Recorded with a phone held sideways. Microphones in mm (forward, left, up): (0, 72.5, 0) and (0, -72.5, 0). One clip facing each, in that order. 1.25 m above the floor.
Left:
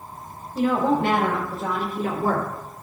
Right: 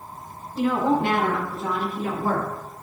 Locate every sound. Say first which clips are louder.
0.6 s a woman speaking: left 1 dB; 45° left (ahead or behind), 4 m; by 2.5 s 50° left (ahead or behind), 3 m